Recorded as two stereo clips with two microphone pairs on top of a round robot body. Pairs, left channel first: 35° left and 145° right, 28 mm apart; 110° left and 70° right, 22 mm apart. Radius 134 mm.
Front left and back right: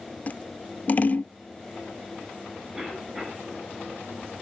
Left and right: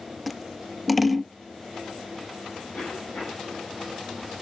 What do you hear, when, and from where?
0.3 s scissors: 20° left, 0.6 m
2.7 s a cough: 160° left, 5.5 m